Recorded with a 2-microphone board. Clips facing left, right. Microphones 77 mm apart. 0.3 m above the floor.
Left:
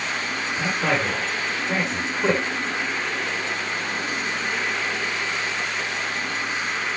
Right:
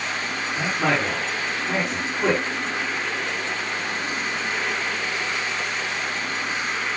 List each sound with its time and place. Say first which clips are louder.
0.6 s a man speaking: right 1 dB; 80° right, 8 m